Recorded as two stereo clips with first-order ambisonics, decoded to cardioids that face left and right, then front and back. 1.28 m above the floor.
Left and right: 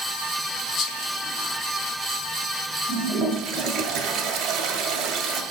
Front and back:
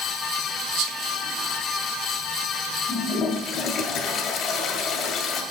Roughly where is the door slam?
I don't hear a door slam.